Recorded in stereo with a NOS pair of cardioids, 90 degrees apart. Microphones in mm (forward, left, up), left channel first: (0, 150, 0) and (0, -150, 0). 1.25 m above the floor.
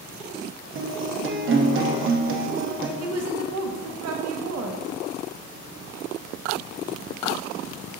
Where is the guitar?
45° right, 0.7 m.